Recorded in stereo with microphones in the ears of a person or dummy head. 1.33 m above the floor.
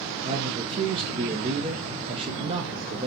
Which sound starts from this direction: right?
A man speaking, at 0.2 s.